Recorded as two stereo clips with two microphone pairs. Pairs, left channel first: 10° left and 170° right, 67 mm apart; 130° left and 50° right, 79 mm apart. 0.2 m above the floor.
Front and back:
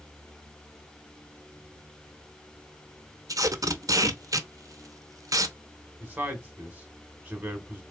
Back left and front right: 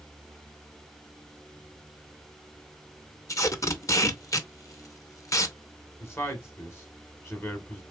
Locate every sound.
3.3 s tape being pulled: 170° left, 0.6 m
6.0 s a man speaking: 150° left, 1.2 m